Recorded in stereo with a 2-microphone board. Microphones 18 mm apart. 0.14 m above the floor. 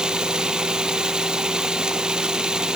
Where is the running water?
55° right (ahead or behind), 0.9 m.